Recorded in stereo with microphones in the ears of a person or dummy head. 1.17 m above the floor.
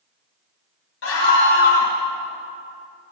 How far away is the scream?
About 2 m.